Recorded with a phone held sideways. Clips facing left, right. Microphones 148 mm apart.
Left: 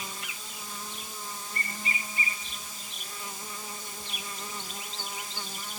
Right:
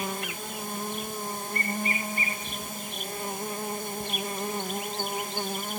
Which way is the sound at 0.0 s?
55° right (ahead or behind).